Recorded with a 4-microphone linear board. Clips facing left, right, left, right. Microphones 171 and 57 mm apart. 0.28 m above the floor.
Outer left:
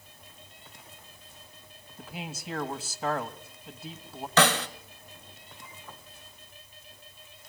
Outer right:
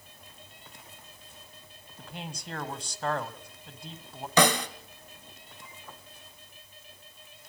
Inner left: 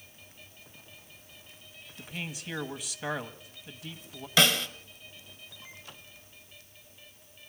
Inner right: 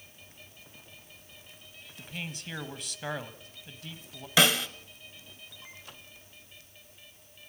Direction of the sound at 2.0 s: 5° left (ahead or behind).